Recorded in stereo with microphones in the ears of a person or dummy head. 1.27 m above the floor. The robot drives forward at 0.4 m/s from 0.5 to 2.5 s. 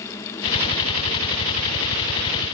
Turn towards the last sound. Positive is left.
No sound to turn to.